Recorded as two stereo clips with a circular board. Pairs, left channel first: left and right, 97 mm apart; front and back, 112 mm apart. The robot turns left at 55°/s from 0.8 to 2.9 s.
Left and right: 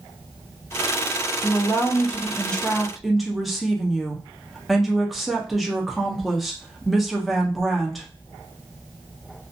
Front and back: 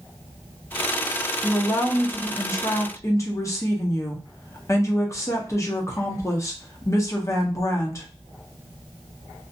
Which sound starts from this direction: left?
A woman speaking, at 1.4 s.